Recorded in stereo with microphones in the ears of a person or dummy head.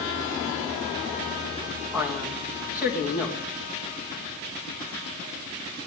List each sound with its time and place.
1.9 s a man speaking: 10° right (ahead or behind), 3 m